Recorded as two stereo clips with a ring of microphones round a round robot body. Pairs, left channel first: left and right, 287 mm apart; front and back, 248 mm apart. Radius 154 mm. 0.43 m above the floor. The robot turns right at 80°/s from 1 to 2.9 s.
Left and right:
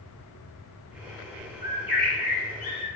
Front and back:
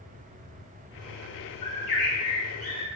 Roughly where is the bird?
Ahead right.